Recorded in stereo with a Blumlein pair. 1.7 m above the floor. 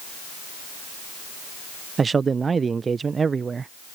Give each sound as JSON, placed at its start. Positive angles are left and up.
{"t": 2.0, "sound": "a man speaking", "azimuth_deg": -15}